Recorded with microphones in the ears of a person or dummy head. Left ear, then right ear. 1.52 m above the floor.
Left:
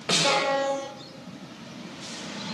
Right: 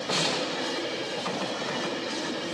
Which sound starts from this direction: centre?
A snare drum, at 0.1 s.